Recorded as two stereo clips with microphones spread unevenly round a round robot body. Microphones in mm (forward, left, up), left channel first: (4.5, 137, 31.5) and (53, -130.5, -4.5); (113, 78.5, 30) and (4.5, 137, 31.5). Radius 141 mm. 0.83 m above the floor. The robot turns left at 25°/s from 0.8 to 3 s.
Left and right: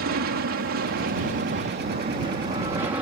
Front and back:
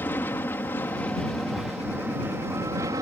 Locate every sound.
0.0 s an aircraft: 100° right; by 3.0 s 155° right